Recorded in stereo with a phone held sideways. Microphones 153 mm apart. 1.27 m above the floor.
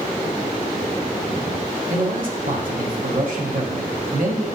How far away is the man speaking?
About 0.9 m.